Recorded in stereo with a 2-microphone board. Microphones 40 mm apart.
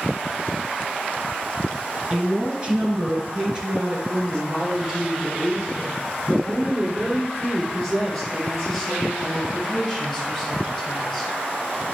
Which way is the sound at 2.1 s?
25° right (ahead or behind).